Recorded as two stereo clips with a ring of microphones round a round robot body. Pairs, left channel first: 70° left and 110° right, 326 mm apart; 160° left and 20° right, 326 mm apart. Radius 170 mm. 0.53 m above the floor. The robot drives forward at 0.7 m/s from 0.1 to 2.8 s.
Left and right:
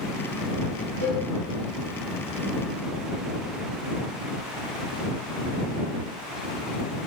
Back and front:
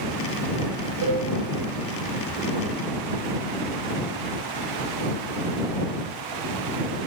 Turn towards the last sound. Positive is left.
turn(degrees=45)